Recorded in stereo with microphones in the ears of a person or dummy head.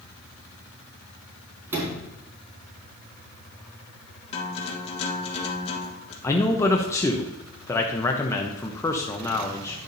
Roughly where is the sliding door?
Centre.